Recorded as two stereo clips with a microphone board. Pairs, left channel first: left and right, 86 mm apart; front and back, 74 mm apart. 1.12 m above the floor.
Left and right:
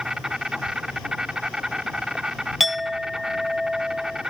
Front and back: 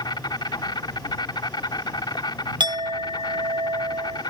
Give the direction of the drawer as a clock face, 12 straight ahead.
No drawer in this recording.